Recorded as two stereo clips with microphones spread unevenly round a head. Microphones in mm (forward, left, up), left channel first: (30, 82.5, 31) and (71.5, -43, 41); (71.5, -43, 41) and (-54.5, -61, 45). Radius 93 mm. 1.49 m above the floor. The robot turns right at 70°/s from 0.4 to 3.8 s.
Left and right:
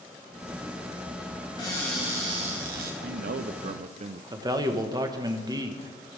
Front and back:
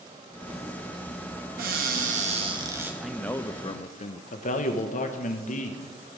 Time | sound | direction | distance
1.6 | a cupboard door | 175° left | 1.4 m
3.0 | a man speaking | 90° right | 0.5 m
4.3 | a man speaking | 15° right | 1.0 m